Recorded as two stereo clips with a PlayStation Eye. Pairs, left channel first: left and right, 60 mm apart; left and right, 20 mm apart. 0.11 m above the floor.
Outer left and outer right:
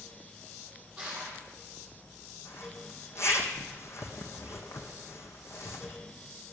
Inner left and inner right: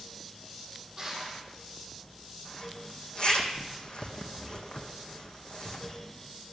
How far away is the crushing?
About 4.5 m.